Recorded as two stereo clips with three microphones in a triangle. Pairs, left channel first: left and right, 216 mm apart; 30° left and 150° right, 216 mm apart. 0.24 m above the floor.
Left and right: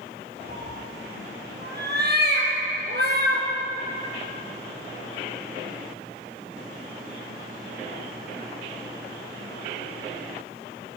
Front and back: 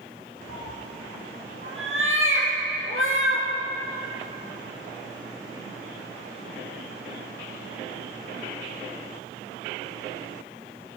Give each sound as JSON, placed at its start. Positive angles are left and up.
{"t": 0.5, "sound": "a cat meowing", "azimuth_deg": -130, "distance_m": 4.5}